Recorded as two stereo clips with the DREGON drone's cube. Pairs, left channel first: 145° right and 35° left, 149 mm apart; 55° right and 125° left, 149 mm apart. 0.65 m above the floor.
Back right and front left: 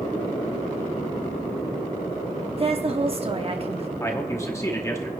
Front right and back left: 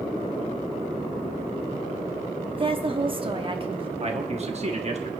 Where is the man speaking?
150° left, 1.1 m.